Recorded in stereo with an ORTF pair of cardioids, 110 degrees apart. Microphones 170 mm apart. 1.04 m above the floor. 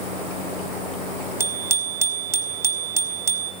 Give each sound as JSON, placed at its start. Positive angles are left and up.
{"t": 1.4, "sound": "a bicycle bell", "azimuth_deg": -15, "distance_m": 4.0}